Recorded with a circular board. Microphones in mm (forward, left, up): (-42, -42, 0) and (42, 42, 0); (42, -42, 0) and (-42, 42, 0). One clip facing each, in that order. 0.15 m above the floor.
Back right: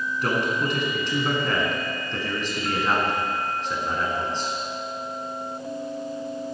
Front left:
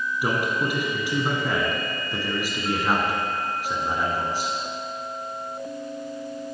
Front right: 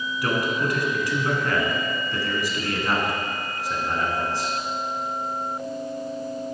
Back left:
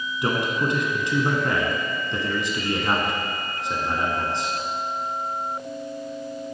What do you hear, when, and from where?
0.2 s a man speaking: 110° left, 1.3 m